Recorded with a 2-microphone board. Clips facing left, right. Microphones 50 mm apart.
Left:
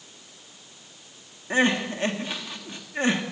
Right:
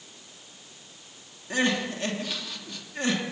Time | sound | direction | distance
1.5 | crying | 30° left (ahead or behind) | 2.5 m